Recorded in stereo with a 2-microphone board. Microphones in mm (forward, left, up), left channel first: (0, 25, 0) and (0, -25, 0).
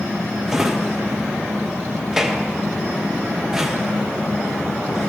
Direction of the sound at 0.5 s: 10° right (ahead or behind).